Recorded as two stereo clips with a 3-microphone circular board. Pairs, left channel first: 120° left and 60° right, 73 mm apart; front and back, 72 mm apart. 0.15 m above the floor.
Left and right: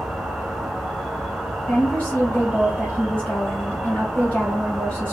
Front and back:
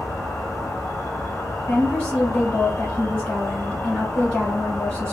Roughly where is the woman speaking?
Ahead left.